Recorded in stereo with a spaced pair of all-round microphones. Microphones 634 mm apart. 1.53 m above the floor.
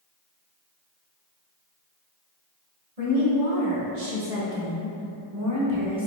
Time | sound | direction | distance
3.0 | a woman speaking | 80° right | 1.7 m